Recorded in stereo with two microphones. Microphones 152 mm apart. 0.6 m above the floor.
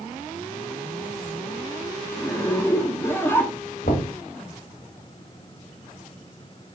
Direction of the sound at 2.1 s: 15° left (ahead or behind).